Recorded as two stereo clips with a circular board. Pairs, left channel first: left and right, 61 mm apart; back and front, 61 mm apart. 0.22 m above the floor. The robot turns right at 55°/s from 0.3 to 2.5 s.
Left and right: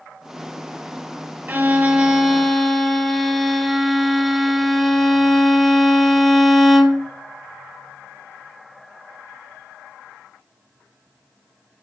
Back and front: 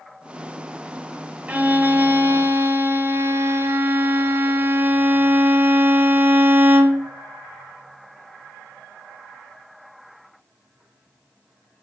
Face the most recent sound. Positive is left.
turn(degrees=5)